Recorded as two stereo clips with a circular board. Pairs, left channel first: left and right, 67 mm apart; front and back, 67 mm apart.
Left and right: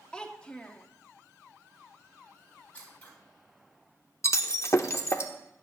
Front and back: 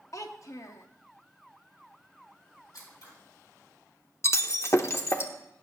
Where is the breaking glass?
45° left, 0.7 m.